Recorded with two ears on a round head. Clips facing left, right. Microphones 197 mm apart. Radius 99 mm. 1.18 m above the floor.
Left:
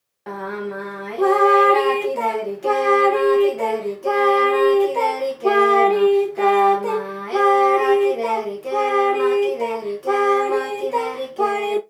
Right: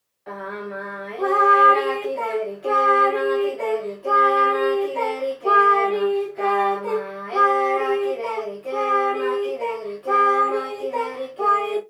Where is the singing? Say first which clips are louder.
Left 4 dB; 55° left (ahead or behind), 1.1 m.